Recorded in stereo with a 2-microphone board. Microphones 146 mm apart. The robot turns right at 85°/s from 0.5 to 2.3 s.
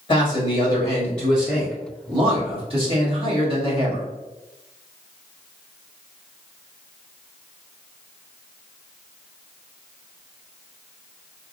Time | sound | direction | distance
0.1 | a man speaking | 115° left | 1.4 m